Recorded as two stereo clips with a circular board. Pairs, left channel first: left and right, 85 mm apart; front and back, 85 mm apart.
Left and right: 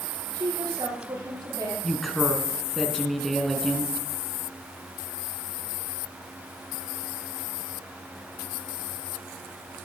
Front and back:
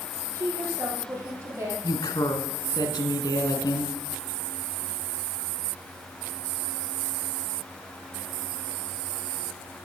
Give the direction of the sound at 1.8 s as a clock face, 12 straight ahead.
12 o'clock.